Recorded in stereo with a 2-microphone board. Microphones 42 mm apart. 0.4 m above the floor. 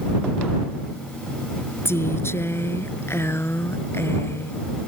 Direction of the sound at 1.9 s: 80° left.